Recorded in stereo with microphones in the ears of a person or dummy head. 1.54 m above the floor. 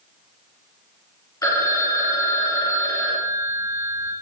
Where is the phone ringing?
20° left (ahead or behind), 2.0 m.